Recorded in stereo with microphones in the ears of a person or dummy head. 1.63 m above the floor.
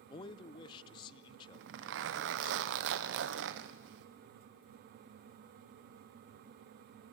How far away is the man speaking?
About 0.7 m.